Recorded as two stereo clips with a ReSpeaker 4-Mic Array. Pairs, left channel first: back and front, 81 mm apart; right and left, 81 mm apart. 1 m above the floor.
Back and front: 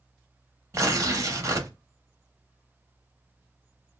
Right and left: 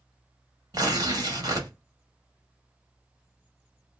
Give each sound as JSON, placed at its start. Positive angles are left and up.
{"t": 0.7, "sound": "tearing paper", "azimuth_deg": 50, "distance_m": 0.9}